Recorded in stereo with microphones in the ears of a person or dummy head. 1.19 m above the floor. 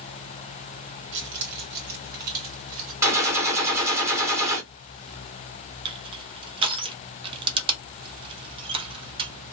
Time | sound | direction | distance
1.1 | keys jangling | 65° right (ahead or behind) | 1.1 m
3.0 | a gunshot | 15° right (ahead or behind) | 1.0 m
5.8 | crushing | 25° right (ahead or behind) | 0.7 m